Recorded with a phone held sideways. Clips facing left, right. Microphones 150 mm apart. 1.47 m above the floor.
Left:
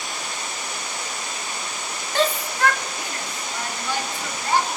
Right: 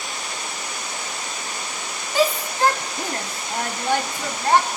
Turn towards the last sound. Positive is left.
turn(degrees=-60)  # may be behind; listen again after turning